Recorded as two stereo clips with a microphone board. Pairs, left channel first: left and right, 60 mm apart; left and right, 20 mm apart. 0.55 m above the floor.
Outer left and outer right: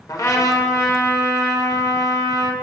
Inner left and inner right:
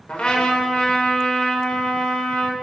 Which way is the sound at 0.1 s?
70° left (ahead or behind).